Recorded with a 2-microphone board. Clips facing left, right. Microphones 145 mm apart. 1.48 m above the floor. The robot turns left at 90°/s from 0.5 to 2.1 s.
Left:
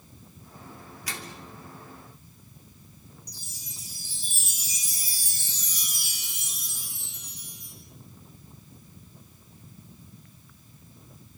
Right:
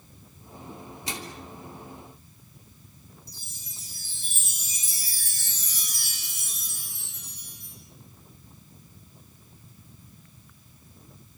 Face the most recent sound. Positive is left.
turn(degrees=15)  # may be behind; listen again after turning